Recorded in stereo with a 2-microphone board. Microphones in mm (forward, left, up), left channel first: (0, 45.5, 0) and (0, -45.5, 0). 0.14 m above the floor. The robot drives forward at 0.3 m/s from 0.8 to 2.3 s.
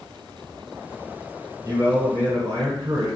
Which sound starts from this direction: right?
A man speaking, at 1.6 s.